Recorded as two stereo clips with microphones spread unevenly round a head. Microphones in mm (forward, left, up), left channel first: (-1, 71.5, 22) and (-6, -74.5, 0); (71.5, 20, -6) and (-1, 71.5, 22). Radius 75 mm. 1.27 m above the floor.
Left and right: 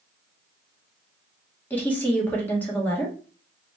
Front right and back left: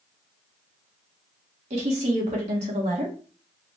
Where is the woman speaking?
170° left, 1.6 m.